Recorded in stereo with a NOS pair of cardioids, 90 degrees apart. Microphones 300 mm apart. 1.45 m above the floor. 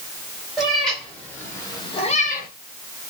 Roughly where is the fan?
I don't hear a fan.